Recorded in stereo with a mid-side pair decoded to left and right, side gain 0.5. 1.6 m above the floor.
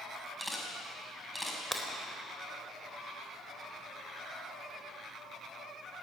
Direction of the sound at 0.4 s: 5° left.